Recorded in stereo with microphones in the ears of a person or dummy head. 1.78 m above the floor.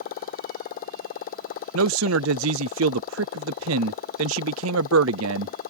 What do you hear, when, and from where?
0.0 s a motorcycle: 45° left (ahead or behind)
1.7 s a man speaking: 75° right (ahead or behind)